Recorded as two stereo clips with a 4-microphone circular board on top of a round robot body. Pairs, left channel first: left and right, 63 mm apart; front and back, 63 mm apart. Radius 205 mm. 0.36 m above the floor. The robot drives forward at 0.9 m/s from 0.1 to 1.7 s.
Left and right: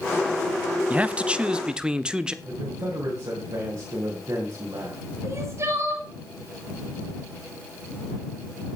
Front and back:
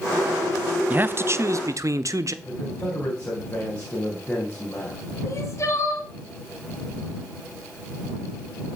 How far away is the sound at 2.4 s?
About 3.5 m.